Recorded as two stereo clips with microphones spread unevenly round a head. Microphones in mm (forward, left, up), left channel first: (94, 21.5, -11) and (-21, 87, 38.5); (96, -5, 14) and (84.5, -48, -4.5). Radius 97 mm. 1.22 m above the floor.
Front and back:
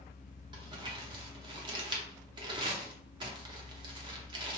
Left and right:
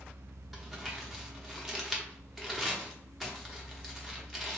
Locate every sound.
0.5 s crumpling: 145° right, 0.6 m